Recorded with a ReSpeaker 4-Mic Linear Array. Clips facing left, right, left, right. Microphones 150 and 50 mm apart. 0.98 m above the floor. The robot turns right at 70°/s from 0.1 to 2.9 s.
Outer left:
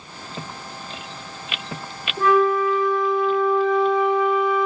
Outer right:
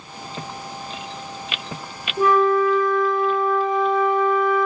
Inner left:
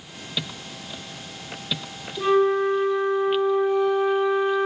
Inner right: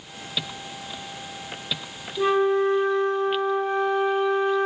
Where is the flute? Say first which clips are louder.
Outer right 1 dB, inner left 1 dB; 170° right, 0.7 m; by 4.7 s 120° right, 0.7 m.